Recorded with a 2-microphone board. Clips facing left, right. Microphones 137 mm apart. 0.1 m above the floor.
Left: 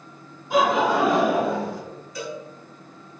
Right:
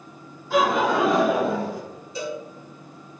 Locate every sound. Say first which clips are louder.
0.5 s laughter: left 1 dB; 15° left (ahead or behind), 1.5 m; by 1.8 s 10° right (ahead or behind), 1.5 m
2.1 s a cowbell: right 3 dB; 25° right (ahead or behind), 1.5 m